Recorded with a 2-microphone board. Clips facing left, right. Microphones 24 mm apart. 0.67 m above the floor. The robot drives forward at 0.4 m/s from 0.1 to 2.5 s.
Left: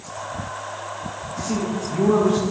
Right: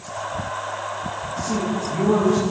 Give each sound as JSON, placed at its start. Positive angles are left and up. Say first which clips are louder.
{"t": 1.4, "sound": "a man speaking", "louder": "even", "side_deg": 30, "distance_m": 5.5}